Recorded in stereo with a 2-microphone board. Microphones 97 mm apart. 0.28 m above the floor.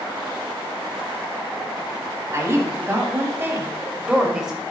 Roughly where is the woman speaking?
Right.